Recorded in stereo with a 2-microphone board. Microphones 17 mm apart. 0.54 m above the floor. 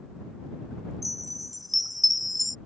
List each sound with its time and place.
1.0 s a chime: 5° right (ahead or behind)